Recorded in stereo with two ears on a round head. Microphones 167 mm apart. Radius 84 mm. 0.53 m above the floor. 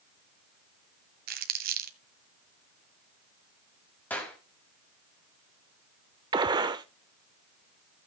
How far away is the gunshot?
About 0.7 m.